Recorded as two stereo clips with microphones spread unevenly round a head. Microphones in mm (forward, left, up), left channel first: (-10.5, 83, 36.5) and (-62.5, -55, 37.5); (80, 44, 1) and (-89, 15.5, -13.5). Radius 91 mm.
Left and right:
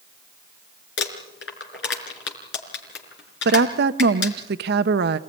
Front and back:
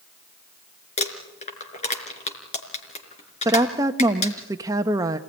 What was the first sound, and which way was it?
Crumpling, 60° left.